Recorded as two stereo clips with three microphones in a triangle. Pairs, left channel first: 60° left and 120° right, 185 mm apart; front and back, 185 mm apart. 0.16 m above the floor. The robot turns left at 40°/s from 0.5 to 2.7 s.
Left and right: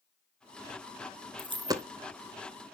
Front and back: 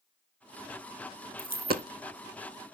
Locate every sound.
1.4 s a dropped coin: 170° right, 0.6 m; by 1.9 s 170° left, 0.6 m